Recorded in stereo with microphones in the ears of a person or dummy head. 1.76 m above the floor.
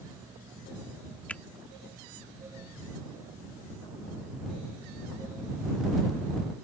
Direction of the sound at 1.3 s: 5° left (ahead or behind).